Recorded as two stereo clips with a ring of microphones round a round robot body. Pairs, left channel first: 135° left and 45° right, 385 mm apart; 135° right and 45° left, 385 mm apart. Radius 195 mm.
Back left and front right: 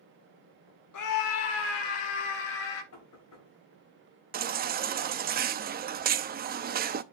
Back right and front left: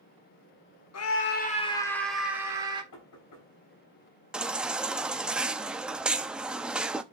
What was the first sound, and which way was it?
A scream, 175° left.